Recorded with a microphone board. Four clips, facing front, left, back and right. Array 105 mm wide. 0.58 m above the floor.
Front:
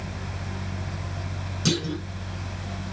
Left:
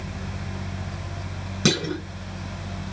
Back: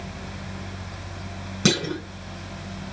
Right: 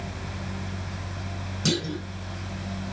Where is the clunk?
135° left, 2.5 m.